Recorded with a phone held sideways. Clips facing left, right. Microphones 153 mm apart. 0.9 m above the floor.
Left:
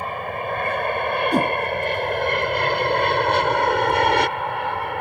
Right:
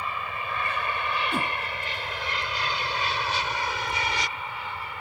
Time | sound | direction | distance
0.0 | an aircraft | 50° left (ahead or behind) | ?
1.3 | a whoosh | 40° left (ahead or behind) | ?